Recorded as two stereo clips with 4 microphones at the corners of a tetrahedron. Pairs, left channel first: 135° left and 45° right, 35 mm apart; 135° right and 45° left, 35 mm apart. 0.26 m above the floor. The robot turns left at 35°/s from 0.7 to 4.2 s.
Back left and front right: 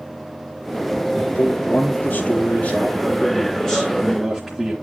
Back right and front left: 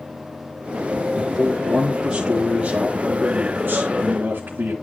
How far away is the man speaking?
About 4 m.